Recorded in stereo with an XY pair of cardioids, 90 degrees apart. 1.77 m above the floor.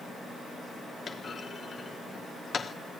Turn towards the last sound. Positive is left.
turn(degrees=40)